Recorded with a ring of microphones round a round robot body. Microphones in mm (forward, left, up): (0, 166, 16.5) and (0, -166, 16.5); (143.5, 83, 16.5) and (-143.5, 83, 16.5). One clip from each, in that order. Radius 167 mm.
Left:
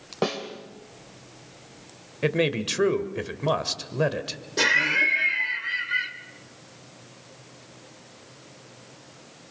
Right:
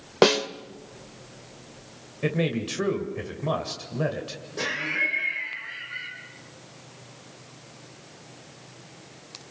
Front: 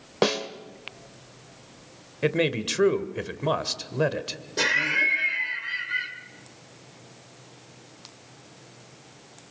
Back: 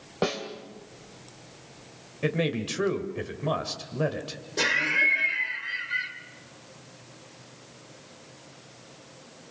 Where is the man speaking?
40° left, 1.9 m.